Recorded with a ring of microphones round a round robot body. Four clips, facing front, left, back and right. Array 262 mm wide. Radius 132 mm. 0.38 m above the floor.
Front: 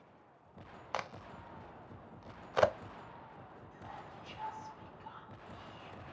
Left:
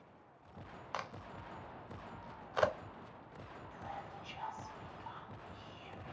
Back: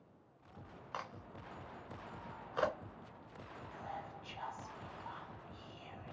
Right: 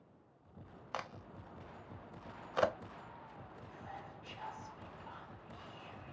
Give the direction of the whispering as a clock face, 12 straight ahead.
7 o'clock.